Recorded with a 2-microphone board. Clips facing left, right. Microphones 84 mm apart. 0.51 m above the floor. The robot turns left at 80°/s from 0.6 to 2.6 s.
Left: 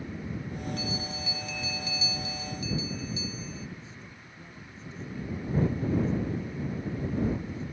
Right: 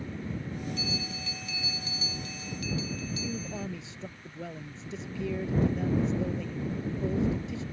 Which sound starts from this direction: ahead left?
A bell, at 0.8 s.